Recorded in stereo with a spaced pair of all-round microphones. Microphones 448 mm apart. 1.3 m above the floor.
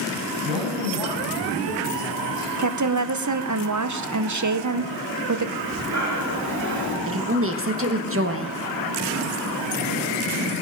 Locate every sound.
0.4 s a man speaking: 80° right, 7.5 m
2.6 s a woman speaking: 40° right (ahead or behind), 0.7 m
5.6 s breathing: 40° right (ahead or behind), 2.5 m
7.1 s a woman speaking: 30° right (ahead or behind), 1.4 m